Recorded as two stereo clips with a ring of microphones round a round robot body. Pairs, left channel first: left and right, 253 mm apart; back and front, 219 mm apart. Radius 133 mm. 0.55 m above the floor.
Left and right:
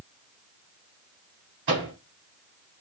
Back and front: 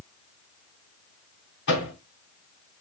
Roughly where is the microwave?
Behind right.